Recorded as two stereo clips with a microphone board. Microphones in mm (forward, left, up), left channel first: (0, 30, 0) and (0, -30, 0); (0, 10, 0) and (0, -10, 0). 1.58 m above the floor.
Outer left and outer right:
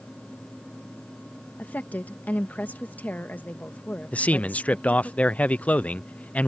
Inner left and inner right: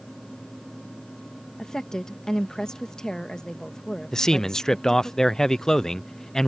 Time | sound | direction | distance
1.6 | a woman speaking | 30° left (ahead or behind) | ?
4.1 | a man speaking | 25° left (ahead or behind) | ?